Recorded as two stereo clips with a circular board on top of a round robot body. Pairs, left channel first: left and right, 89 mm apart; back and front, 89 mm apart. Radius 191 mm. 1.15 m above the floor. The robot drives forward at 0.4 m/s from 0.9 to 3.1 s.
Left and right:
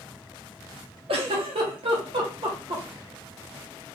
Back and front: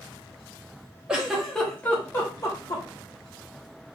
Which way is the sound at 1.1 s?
80° right.